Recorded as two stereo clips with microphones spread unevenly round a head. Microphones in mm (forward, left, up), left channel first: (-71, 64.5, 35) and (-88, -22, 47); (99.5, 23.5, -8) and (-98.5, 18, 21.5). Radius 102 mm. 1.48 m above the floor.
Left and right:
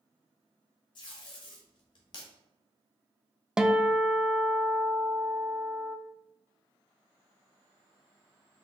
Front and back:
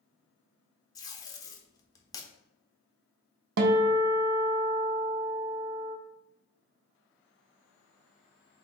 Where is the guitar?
175° left, 0.5 m.